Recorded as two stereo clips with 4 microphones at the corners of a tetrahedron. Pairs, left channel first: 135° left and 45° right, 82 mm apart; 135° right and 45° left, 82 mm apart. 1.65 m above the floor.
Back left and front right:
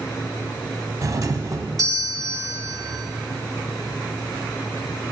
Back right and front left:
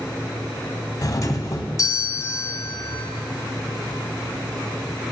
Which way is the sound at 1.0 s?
85° right.